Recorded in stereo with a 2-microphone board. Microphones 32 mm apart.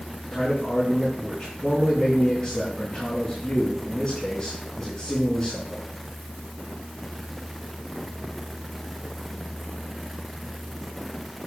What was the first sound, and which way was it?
A man speaking, 20° left (ahead or behind).